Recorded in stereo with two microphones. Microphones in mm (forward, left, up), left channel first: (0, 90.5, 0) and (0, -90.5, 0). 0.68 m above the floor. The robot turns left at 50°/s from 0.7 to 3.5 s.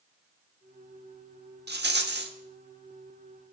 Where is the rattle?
75° right, 1.0 m; by 2.3 s 105° right, 1.0 m.